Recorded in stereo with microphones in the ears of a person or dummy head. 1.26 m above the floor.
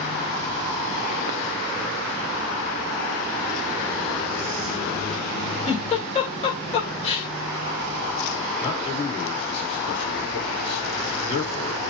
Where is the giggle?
35° left (ahead or behind), 2.5 m.